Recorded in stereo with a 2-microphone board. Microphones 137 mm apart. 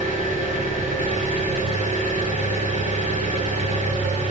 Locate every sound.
0.0 s an engine running: 65° right (ahead or behind), 7.5 m